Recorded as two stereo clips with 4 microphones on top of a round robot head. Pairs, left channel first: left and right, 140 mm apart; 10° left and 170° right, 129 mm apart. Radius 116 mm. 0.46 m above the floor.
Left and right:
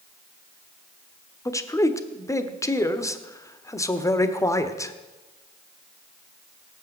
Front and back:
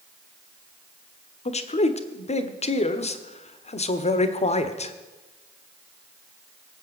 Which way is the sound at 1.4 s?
25° left.